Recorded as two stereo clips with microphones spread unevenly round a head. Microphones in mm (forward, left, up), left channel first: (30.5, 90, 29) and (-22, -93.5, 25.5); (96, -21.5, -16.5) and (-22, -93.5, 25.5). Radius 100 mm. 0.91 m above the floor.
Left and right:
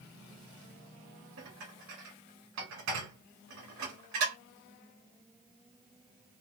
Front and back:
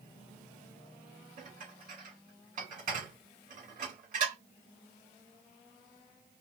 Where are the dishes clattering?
120° right, 2.5 m.